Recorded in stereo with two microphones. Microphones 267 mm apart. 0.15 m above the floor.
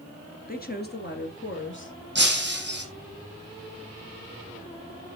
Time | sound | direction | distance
0.5 | a woman speaking | 35° left (ahead or behind) | 2 m
2.1 | breaking glass | 40° right (ahead or behind) | 3 m